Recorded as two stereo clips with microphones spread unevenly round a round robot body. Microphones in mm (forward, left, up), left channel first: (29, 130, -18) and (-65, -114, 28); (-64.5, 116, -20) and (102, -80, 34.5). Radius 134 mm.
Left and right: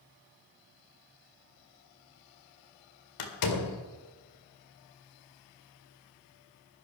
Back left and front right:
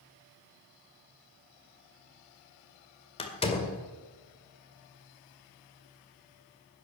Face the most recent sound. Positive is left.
turn(degrees=60)